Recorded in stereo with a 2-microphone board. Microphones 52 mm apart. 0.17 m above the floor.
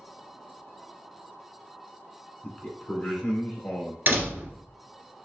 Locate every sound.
2.4 s a man speaking: 20° left (ahead or behind), 2.0 m; by 4.0 s 35° left (ahead or behind), 3 m
4.1 s a door slam: 40° right (ahead or behind), 1.5 m